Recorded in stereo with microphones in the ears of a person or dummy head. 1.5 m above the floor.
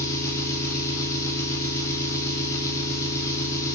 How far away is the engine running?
About 0.7 m.